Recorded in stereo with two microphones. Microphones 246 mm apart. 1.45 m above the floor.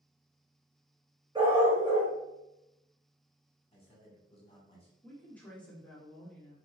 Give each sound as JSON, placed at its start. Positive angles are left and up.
{"t": 1.4, "sound": "a dog barking", "side_deg": -20, "distance_m": 1.5}
{"t": 3.7, "sound": "a man speaking", "side_deg": 25, "distance_m": 1.5}
{"t": 5.0, "sound": "a woman speaking", "side_deg": 5, "distance_m": 1.1}